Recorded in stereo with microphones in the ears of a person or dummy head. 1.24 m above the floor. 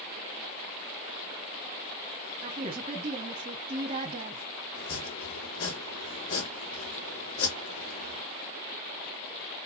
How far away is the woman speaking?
About 0.9 m.